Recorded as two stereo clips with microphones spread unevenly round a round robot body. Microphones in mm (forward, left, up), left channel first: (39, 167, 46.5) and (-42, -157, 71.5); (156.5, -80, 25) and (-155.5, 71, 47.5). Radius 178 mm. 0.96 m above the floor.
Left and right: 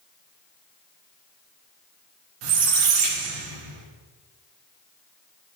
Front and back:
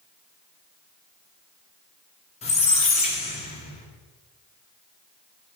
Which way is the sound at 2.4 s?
100° right.